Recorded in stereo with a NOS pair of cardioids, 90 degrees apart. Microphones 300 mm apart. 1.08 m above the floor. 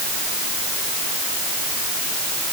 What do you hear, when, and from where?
Only background noise.